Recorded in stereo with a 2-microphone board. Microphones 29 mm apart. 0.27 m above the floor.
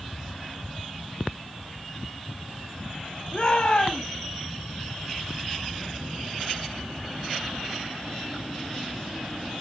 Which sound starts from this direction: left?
A shout, at 3.3 s.